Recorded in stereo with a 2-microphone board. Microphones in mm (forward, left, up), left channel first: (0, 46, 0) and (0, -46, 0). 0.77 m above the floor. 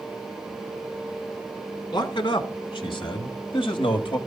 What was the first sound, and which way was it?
A man speaking, 50° left (ahead or behind).